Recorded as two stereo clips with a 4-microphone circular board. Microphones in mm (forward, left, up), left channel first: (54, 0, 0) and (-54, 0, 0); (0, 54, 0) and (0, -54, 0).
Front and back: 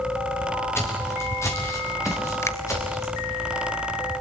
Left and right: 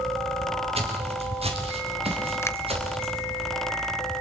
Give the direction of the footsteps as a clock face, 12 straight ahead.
2 o'clock.